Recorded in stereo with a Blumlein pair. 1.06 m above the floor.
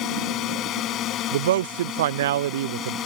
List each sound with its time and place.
0.0 s a drone: 35° left; by 3.1 s 30° left
1.3 s a man speaking: 60° right